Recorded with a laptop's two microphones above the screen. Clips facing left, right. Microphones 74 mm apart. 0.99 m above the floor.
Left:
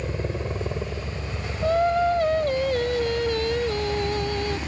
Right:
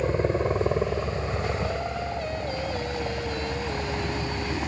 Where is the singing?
70° left (ahead or behind).